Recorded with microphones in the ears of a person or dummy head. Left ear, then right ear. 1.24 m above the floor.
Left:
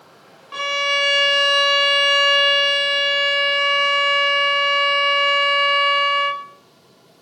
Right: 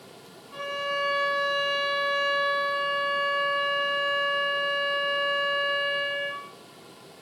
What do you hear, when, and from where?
0.5 s a violin: 55° left (ahead or behind), 0.6 m